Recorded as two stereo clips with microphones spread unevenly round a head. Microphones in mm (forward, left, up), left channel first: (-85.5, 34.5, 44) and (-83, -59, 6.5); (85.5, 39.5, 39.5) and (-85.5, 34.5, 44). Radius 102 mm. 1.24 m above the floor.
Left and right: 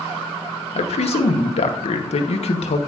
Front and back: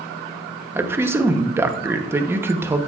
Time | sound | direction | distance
0.8 | a man speaking | 105° left | 0.8 m